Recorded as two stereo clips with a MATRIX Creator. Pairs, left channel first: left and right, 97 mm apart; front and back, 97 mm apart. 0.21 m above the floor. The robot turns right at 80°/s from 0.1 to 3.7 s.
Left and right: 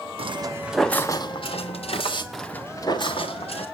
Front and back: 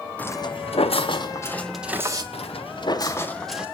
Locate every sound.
0.2 s footsteps: 75° right, 0.6 m; by 2.2 s 130° left, 2 m
2.3 s footsteps: straight ahead, 1.3 m; by 3.6 s 100° left, 3 m